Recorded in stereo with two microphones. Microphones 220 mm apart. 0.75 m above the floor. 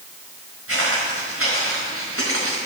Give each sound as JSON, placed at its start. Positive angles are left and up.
{"t": 0.7, "sound": "footsteps", "side_deg": -75, "distance_m": 5.0}